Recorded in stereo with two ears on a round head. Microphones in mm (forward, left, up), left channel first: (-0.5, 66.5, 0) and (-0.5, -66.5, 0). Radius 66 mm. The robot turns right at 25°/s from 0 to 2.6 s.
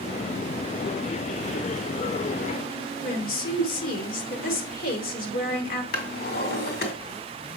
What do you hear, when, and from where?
3.0 s a woman speaking: 60° left (ahead or behind), 2.0 m
5.9 s a drawer: 70° left (ahead or behind), 1.8 m